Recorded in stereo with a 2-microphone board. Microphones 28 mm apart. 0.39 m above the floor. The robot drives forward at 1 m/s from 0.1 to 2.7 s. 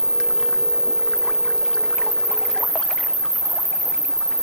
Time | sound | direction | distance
0.0 | an insect | 35° left (ahead or behind) | 4.5 m